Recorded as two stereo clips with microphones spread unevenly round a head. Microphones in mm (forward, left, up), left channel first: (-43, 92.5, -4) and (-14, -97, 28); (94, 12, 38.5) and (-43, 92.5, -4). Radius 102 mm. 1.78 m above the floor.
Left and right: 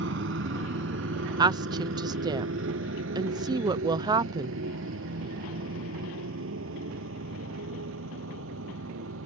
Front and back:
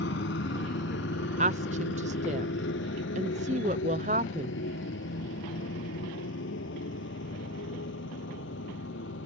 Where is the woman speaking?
150° right.